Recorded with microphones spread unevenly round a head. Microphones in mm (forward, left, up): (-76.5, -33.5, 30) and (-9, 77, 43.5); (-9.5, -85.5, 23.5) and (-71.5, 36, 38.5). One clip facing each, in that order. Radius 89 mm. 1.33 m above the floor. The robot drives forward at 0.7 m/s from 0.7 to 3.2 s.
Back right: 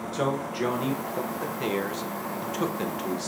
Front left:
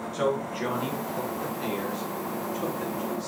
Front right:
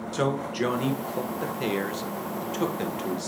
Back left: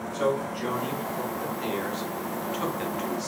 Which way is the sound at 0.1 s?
60° right.